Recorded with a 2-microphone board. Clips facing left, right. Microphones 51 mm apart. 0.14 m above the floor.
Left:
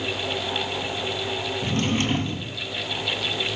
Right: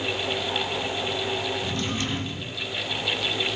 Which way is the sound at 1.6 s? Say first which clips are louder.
Left 4 dB; 45° left (ahead or behind).